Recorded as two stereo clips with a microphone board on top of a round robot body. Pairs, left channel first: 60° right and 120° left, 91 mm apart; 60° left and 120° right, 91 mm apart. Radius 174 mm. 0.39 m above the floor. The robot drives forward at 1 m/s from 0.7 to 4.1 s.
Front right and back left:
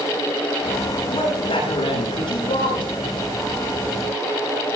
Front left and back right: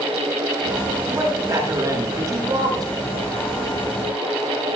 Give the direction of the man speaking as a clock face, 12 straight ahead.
2 o'clock.